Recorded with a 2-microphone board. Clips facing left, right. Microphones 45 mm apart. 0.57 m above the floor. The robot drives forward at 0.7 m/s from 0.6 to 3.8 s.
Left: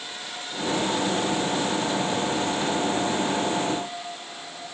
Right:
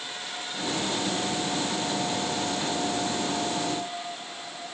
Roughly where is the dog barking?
No dog barking in this recording.